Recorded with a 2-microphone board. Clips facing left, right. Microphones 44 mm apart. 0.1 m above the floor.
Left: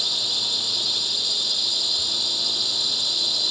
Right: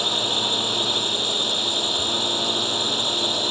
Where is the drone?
40° right (ahead or behind).